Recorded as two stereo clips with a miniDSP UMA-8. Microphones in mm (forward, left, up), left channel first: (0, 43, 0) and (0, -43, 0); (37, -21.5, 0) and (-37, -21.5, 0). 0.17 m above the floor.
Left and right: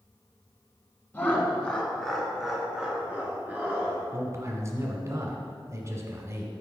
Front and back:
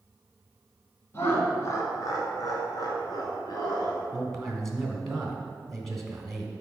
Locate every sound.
1.1 s laughter: 35° left, 1.6 m; by 4.0 s 25° right, 2.5 m
4.1 s a man speaking: 85° right, 1.2 m